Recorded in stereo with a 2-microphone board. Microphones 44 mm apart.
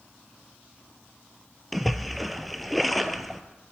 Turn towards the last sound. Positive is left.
turn(degrees=0)  # may be behind; listen again after turning